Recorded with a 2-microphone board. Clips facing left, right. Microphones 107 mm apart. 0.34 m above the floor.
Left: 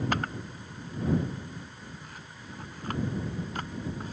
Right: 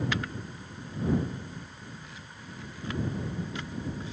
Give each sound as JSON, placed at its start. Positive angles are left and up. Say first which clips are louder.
{"t": 0.1, "sound": "a camera shutter", "louder": "left 2 dB", "side_deg": 45}